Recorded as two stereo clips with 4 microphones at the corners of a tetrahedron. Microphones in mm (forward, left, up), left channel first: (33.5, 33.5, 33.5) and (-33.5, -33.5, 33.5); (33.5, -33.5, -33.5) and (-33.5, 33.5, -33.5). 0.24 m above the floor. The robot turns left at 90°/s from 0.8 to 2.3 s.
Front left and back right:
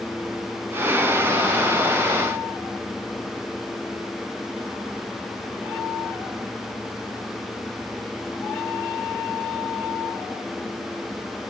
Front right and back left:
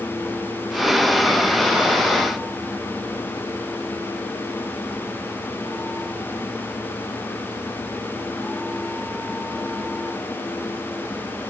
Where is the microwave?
I don't hear a microwave.